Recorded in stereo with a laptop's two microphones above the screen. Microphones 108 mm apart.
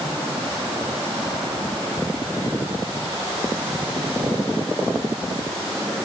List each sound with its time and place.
Only background noise.